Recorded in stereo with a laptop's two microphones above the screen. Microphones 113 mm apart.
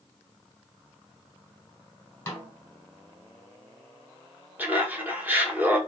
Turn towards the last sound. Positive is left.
turn(degrees=-15)  # may be behind; listen again after turning